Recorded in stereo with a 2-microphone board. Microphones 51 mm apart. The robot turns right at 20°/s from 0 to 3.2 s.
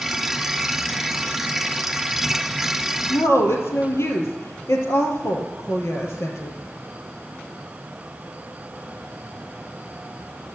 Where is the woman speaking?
65° left (ahead or behind), 3 m; by 6.5 s 70° left (ahead or behind), 3 m.